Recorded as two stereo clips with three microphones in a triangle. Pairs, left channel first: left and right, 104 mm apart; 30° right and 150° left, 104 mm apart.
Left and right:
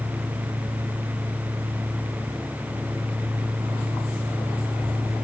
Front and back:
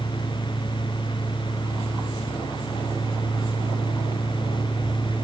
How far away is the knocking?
I don't hear knocking.